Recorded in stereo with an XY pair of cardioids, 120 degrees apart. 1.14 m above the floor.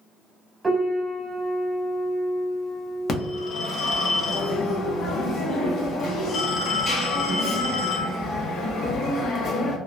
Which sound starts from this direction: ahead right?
A piano, at 0.6 s.